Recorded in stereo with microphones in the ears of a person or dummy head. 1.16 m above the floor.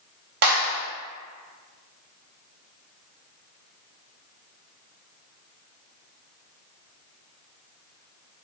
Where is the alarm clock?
No alarm clock in this recording.